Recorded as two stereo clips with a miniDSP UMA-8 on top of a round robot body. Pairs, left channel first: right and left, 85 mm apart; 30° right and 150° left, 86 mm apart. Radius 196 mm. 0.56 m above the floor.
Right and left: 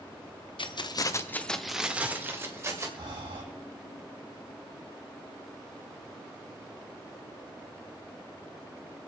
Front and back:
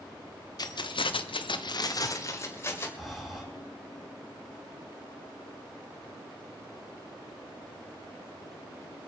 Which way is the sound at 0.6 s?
70° right.